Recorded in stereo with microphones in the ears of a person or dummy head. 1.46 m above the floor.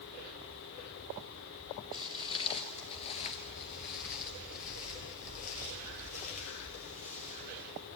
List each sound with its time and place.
1.9 s footsteps: 20° left (ahead or behind), 1.9 m; by 7.7 s 35° left (ahead or behind), 3 m